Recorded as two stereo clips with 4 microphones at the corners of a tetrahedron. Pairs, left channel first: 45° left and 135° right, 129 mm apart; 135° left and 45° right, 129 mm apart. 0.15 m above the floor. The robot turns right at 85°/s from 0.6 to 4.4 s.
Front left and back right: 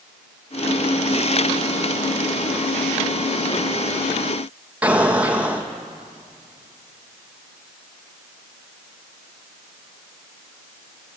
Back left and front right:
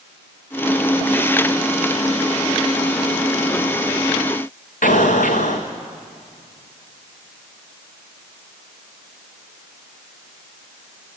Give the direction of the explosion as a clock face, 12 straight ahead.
7 o'clock.